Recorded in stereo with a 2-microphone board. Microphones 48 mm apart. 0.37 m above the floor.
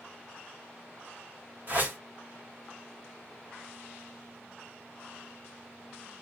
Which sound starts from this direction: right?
A whoosh, at 1.7 s.